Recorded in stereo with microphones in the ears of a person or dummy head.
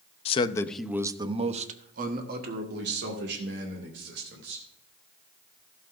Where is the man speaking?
35° left (ahead or behind), 0.7 m; by 4.7 s 70° right (ahead or behind), 3 m.